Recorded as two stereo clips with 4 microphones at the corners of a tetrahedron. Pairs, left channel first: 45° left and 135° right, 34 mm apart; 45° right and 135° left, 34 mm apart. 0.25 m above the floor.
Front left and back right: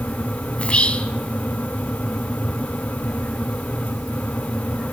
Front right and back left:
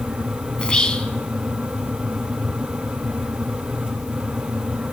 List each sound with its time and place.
0.6 s whispering: 5° left, 2.5 m